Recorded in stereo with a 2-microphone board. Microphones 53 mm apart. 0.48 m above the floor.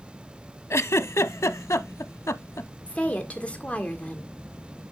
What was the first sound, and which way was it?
A giggle, 65° left (ahead or behind).